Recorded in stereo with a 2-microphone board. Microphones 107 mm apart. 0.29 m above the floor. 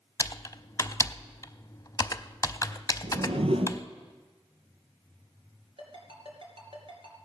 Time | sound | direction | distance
0.2 | typing on a keyboard | 35° left (ahead or behind) | 0.5 m
3.0 | a whoosh | 70° right (ahead or behind) | 1.0 m
5.8 | a ringtone | 60° right (ahead or behind) | 3.5 m